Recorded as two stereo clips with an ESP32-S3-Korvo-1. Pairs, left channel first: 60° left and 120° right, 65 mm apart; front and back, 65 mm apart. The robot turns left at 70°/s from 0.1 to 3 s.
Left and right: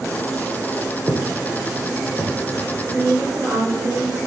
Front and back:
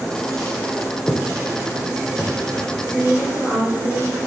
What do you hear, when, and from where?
1.1 s footsteps: 90° right, 1.0 m; by 2.3 s 135° right, 2.5 m
2.9 s a woman speaking: 125° right, 2.5 m; by 4.2 s 135° right, 2.5 m